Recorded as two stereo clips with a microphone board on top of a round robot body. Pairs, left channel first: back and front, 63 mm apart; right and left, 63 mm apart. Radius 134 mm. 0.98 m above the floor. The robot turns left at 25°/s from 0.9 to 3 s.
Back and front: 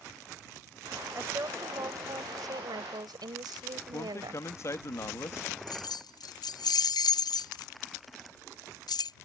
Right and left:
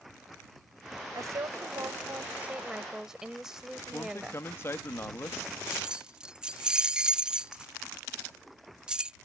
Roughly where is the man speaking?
Behind right.